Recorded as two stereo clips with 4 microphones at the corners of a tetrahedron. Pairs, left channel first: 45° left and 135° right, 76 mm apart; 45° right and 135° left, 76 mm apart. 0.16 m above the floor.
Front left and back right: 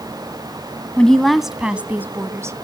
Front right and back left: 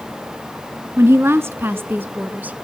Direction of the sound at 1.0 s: 115° left.